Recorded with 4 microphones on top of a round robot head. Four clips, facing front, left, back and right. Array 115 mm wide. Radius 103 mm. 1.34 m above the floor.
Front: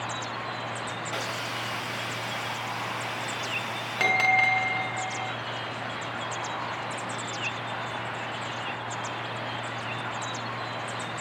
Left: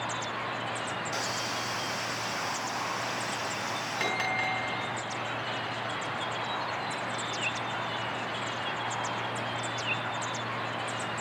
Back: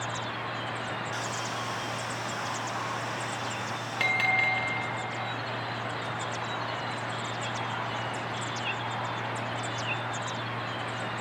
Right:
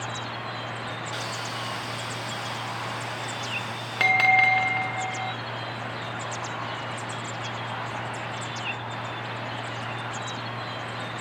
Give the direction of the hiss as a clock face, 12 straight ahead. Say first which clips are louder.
Even, front 1 dB; 11 o'clock.